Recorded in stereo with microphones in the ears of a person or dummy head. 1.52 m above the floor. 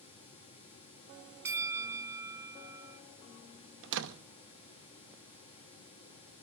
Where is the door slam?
75° right (ahead or behind), 1.0 m.